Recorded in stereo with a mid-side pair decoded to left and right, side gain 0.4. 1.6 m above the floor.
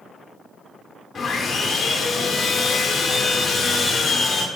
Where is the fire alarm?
No fire alarm in this recording.